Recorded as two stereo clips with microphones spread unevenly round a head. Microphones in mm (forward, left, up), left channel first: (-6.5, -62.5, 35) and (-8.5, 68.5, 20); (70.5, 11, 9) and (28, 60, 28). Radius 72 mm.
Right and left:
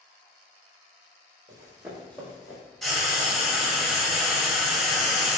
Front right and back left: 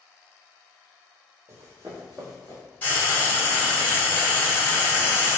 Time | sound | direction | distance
1.5 | running footsteps | 145° left | 1.3 m
2.8 | frying | straight ahead | 1.7 m